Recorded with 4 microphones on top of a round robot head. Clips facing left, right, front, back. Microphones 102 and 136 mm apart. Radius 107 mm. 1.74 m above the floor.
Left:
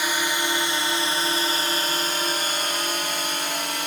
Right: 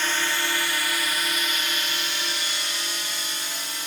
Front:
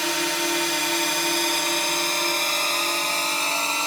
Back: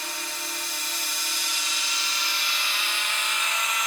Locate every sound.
0.0 s a drone: 10° left; by 3.9 s 60° left